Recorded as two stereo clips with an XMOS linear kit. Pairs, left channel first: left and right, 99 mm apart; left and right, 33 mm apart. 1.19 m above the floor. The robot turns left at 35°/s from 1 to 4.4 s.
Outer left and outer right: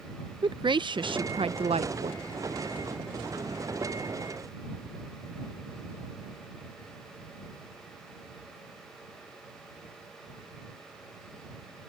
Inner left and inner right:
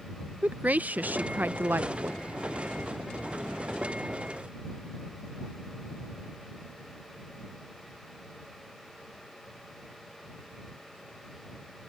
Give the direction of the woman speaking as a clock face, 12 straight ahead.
2 o'clock.